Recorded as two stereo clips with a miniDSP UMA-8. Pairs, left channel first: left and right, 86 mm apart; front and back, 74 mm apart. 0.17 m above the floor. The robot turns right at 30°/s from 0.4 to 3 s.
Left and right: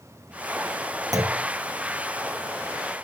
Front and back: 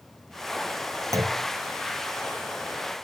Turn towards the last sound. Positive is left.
turn(degrees=-80)